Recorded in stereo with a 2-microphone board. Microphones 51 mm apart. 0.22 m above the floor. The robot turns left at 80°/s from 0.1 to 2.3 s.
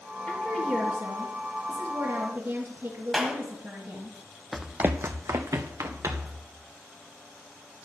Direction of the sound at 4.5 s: Centre (ahead or behind).